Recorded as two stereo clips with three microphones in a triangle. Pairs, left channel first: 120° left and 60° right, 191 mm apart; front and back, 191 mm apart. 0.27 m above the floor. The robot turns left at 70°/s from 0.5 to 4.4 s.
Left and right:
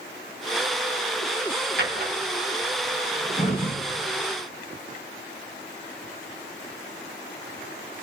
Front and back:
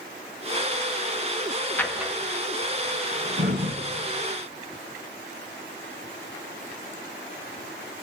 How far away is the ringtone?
No ringtone in this recording.